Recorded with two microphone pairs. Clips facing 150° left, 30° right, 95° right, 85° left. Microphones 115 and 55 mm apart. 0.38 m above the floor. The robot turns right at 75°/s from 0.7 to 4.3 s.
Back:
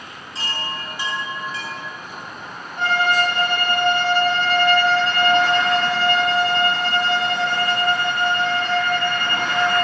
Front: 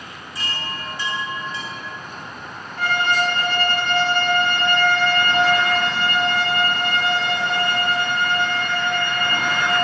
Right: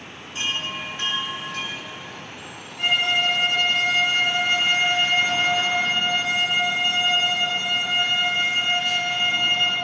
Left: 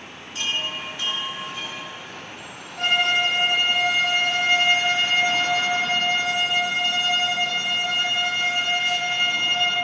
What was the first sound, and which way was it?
A chime, 155° right.